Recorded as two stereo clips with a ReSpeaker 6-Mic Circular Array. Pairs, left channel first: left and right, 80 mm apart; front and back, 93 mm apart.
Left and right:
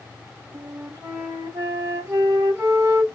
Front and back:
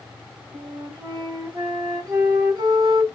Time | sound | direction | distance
0.5 | a flute | 140° right | 2.5 m